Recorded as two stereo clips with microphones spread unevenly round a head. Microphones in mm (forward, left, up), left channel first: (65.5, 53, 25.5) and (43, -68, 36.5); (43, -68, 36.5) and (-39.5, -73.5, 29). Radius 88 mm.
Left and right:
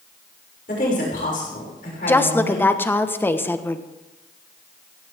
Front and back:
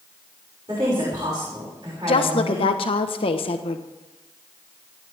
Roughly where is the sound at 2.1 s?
Ahead.